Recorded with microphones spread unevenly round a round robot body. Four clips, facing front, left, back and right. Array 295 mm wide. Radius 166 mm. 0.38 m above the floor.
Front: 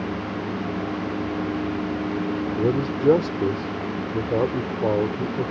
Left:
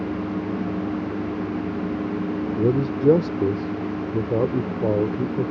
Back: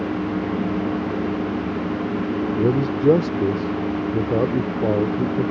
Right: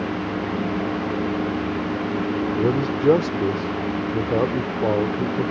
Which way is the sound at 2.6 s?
135° left.